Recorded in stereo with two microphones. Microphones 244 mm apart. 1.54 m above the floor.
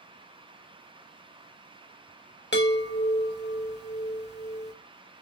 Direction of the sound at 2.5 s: 45° left (ahead or behind).